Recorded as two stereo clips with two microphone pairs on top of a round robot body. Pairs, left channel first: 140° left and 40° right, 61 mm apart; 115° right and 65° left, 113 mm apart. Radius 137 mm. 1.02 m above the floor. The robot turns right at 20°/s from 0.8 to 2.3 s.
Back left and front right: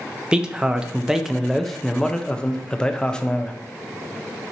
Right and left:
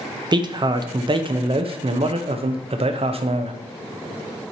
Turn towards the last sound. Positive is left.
turn(degrees=55)